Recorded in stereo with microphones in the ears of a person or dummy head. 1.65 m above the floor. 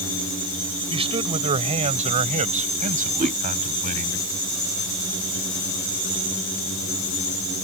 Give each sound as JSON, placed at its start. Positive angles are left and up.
{"t": 0.9, "sound": "a man speaking", "side_deg": -25}
{"t": 3.2, "sound": "a whoosh", "side_deg": -20}